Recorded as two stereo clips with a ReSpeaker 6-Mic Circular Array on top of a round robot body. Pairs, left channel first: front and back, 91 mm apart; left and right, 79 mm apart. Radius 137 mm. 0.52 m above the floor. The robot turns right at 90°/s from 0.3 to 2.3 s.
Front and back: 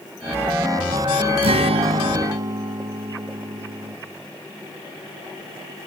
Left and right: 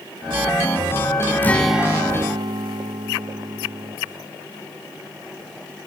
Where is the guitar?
155° left, 1.7 m; by 4.0 s 125° right, 1.7 m.